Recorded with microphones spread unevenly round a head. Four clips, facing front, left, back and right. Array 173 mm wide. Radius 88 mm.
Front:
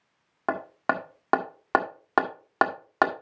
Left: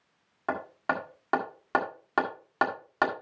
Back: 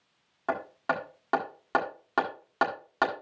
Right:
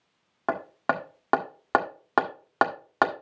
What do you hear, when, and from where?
0.5 s hammering: 25° right, 1.5 m